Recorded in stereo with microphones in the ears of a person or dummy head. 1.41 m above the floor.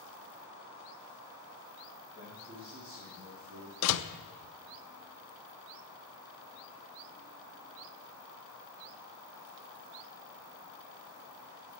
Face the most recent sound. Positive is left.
turn(degrees=80)